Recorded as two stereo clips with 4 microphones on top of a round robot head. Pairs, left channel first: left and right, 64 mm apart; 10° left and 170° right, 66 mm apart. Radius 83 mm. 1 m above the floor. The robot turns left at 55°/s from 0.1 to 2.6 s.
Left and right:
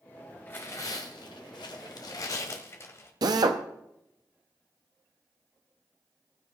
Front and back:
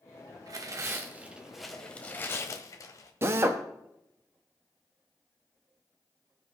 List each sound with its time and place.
0.5 s tearing paper: 160° left, 1.3 m; by 3.1 s 45° left, 1.3 m
3.2 s a drill: 115° right, 0.9 m